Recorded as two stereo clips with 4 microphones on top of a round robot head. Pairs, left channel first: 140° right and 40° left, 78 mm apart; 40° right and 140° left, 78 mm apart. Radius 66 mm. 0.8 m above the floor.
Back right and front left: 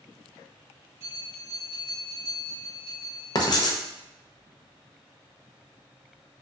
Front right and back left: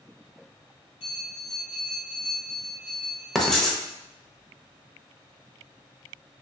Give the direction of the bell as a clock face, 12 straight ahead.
12 o'clock.